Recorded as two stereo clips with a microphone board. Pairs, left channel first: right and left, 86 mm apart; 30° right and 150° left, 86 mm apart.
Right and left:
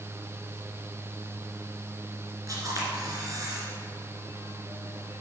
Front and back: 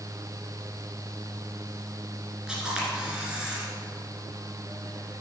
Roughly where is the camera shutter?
Left.